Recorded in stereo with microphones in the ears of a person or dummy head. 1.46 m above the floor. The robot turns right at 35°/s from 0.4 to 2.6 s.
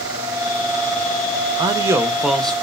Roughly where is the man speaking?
Ahead right.